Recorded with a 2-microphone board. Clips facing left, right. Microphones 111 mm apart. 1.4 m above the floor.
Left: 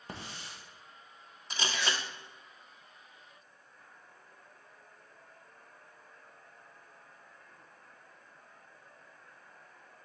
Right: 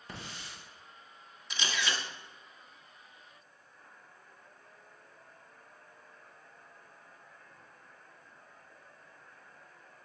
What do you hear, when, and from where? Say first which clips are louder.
0.1 s a hiss: left 1 dB; 35° left (ahead or behind), 1.8 m
1.5 s a camera shutter: left 1 dB; 40° left (ahead or behind), 1.1 m